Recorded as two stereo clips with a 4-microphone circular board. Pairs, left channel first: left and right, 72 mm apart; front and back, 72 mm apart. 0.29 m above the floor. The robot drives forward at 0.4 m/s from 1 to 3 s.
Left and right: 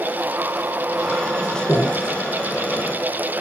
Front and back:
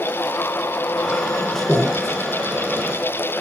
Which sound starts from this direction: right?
Breathing, at 1.7 s.